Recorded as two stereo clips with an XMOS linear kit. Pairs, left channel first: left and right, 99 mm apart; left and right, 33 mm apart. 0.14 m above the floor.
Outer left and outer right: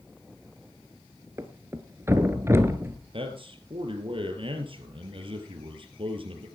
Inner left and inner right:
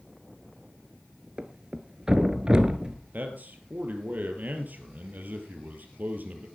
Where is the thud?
25° right (ahead or behind), 1.2 m.